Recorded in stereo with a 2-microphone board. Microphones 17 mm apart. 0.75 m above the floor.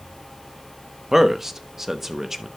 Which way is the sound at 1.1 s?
15° right (ahead or behind).